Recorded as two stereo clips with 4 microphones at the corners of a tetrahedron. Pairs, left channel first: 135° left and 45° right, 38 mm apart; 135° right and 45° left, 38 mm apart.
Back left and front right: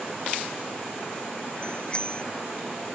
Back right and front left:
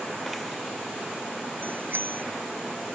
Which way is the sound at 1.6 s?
70° left.